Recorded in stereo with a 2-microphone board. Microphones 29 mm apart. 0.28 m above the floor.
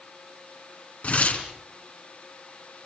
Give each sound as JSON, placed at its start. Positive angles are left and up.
{"t": 1.0, "sound": "tearing paper", "side_deg": 55, "distance_m": 4.0}